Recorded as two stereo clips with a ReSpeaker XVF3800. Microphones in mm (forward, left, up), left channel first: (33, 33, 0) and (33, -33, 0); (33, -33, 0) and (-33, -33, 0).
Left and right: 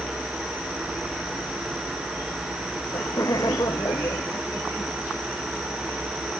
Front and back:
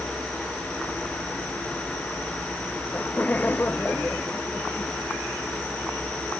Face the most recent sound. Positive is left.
turn(degrees=60)